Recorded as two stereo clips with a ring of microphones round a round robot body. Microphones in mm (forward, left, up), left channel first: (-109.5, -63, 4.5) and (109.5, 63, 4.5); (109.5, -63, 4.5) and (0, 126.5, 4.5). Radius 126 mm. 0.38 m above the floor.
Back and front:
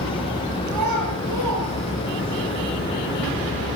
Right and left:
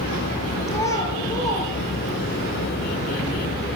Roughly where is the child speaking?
Ahead.